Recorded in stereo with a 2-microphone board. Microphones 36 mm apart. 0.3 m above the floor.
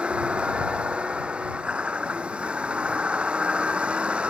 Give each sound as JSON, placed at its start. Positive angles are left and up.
{"t": 0.0, "sound": "a vehicle", "side_deg": -30}